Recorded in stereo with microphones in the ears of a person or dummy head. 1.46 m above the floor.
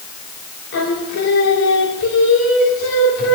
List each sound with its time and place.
0.7 s singing: 75° left (ahead or behind), 2.5 m